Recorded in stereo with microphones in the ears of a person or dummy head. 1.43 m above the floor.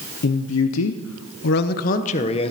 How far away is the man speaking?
About 0.8 m.